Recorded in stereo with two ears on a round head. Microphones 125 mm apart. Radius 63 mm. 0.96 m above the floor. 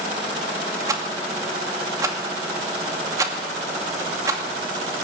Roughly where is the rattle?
Right.